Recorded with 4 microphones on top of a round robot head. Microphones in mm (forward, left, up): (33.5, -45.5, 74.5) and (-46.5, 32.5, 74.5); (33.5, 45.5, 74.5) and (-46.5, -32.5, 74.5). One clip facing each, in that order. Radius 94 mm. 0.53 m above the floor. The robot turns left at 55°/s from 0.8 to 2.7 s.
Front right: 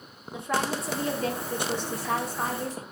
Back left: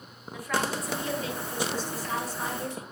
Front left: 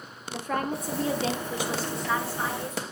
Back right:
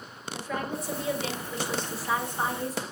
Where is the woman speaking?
15° left, 2.0 m; by 2.8 s 90° right, 2.0 m.